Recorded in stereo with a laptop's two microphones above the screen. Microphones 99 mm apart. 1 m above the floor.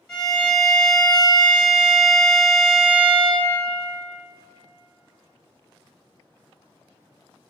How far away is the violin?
About 1.6 m.